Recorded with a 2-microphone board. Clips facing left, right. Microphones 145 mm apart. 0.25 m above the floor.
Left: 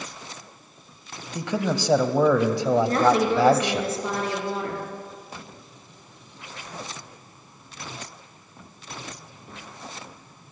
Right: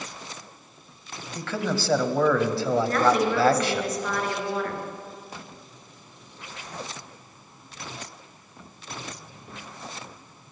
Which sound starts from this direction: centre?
A man speaking, at 1.4 s.